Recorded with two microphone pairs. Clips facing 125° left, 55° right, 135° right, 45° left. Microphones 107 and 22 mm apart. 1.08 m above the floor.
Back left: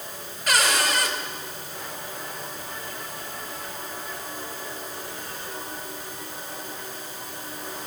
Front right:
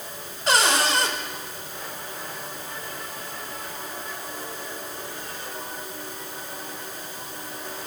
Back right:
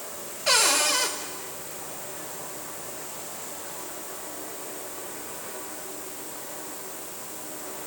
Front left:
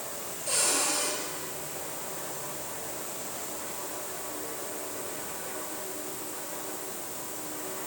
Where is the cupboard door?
120° right, 3 m.